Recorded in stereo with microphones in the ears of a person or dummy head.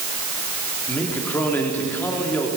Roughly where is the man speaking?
Centre.